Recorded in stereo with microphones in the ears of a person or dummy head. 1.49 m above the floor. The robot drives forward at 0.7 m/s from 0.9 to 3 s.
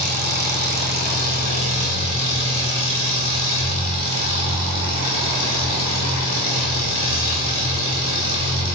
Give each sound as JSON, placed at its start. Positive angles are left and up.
{"t": 0.0, "sound": "an engine running", "side_deg": -50, "distance_m": 1.8}